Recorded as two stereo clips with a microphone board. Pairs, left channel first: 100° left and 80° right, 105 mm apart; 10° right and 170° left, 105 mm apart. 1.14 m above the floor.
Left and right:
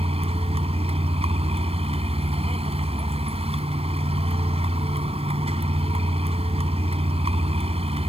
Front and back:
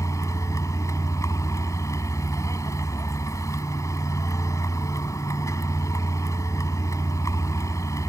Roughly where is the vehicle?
Right.